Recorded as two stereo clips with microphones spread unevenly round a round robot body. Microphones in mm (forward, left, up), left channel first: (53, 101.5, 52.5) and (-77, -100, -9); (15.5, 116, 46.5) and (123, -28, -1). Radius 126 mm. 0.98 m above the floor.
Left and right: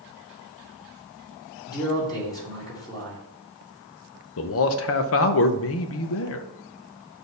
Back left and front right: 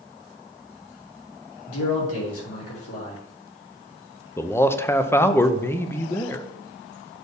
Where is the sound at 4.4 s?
35° left, 0.6 m.